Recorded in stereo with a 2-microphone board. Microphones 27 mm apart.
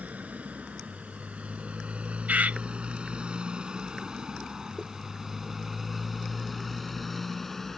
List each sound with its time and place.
0.0 s a motorcycle: 65° right (ahead or behind); by 7.8 s 10° left (ahead or behind)
2.3 s a bird: 70° right (ahead or behind)